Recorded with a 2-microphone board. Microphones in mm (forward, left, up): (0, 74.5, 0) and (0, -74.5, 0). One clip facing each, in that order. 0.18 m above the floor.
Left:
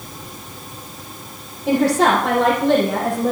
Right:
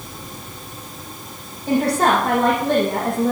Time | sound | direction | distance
1.7 | a woman speaking | 70° left (ahead or behind) | 6 m